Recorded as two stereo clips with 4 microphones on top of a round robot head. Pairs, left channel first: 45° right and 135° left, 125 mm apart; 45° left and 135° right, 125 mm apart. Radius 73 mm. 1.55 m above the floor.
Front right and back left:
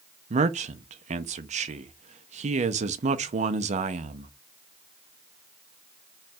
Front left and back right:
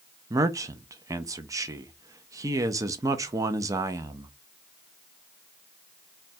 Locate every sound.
0.3 s a man speaking: 165° left, 0.6 m